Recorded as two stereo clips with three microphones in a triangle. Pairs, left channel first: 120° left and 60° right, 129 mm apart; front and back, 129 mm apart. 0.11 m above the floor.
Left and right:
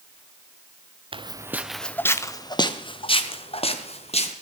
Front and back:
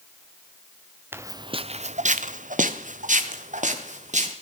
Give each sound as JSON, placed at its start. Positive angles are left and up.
{"t": 1.1, "sound": "footsteps", "azimuth_deg": -110, "distance_m": 0.7}